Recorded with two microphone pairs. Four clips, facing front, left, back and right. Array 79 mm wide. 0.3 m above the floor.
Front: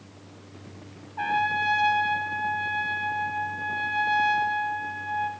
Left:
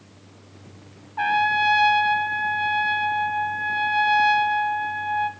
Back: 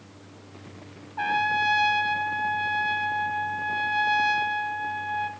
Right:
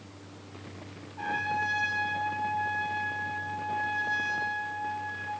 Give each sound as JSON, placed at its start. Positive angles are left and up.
{"t": 1.2, "sound": "a trumpet", "azimuth_deg": 110, "distance_m": 0.7}